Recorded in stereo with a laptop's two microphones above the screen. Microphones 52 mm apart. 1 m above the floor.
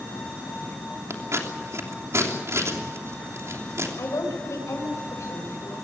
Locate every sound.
1.1 s scissors: 65° right (ahead or behind), 3 m
4.0 s a woman speaking: 80° left, 5 m